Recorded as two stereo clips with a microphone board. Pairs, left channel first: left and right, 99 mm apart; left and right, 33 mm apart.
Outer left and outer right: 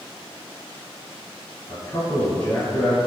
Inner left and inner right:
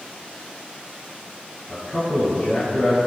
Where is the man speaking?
15° left (ahead or behind), 1.5 m.